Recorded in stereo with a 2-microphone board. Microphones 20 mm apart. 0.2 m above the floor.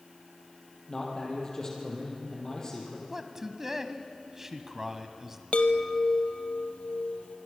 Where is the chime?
80° left, 1.3 m.